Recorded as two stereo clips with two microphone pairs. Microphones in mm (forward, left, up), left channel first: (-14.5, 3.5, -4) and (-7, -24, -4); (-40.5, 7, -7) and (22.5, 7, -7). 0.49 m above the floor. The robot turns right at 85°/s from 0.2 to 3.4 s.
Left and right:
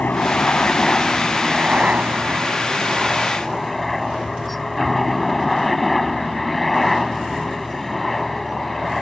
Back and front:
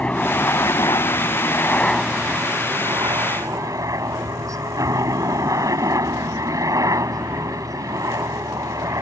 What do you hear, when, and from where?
0.0 s a helicopter: 110° left; by 9.0 s 20° left